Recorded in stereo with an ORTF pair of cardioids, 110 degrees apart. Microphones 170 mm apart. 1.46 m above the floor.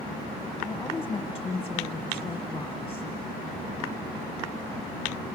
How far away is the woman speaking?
About 1.6 m.